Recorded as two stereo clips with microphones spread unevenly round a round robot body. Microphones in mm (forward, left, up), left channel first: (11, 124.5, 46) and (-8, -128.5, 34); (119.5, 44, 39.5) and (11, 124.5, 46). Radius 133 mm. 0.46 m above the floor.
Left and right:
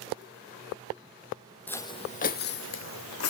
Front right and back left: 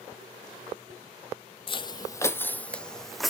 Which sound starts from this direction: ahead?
Footsteps, at 1.7 s.